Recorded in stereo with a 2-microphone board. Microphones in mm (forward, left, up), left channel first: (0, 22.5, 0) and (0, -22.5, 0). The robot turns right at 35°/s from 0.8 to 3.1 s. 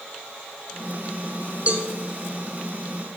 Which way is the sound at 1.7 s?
35° right (ahead or behind).